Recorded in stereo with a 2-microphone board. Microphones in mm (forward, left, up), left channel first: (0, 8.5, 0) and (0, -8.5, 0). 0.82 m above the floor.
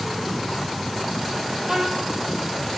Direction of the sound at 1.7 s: 45° right (ahead or behind).